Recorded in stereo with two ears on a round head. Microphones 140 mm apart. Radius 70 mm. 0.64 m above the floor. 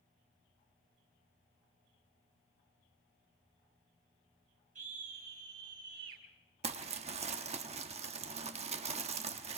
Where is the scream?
55° right (ahead or behind), 4 m; by 6.2 s 65° right (ahead or behind), 5 m.